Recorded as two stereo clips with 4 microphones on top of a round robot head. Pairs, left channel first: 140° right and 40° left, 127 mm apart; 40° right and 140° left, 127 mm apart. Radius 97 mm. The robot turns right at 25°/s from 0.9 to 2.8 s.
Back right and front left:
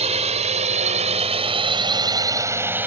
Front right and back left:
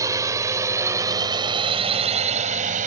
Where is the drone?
75° left; by 2.9 s 115° left.